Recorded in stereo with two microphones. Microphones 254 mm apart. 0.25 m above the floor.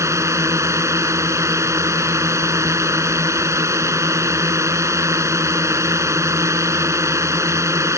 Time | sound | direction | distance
0.0 | a drone | 10° right (ahead or behind) | ?